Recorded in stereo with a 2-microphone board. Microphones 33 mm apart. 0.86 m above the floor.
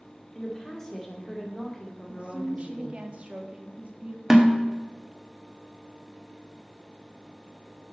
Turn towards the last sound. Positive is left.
turn(degrees=-15)  # may be behind; listen again after turning